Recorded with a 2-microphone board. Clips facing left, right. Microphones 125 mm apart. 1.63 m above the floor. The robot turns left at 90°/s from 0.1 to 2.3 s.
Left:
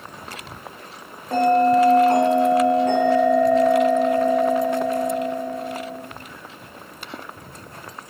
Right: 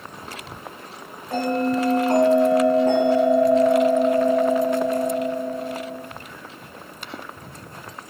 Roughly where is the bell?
Ahead left.